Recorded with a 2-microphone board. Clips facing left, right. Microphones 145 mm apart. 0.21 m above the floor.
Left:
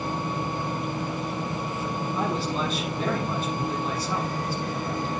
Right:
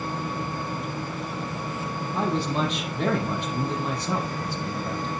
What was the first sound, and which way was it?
A man speaking, 70° right (ahead or behind).